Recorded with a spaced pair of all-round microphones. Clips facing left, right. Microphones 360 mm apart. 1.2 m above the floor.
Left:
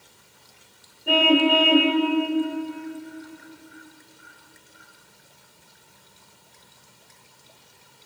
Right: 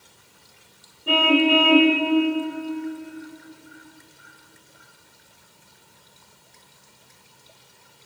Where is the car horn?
10° right (ahead or behind), 2.5 m.